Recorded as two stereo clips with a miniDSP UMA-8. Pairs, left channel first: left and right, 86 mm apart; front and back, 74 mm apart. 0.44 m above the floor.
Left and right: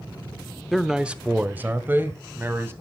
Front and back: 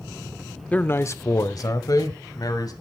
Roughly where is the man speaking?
Ahead.